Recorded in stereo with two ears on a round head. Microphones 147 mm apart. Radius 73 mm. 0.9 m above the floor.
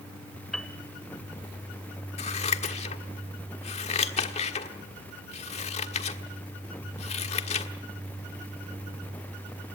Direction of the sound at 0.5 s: Centre (ahead or behind).